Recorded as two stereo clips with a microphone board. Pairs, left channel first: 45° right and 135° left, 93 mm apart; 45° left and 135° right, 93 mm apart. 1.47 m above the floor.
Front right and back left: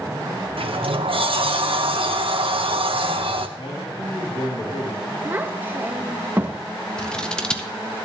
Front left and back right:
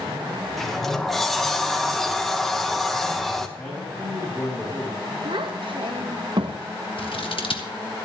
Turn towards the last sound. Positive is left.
turn(degrees=35)